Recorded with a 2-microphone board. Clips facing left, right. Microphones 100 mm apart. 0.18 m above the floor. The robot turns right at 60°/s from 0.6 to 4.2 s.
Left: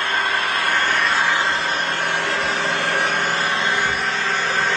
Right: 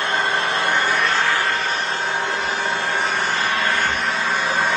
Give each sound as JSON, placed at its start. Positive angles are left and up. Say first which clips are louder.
{"t": 0.0, "sound": "an engine running", "louder": "right 1 dB", "azimuth_deg": -25, "distance_m": 1.4}